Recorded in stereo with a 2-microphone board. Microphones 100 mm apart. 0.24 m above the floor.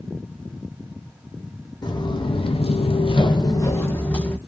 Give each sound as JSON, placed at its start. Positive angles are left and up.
{"t": 1.8, "sound": "footsteps", "side_deg": 45, "distance_m": 0.8}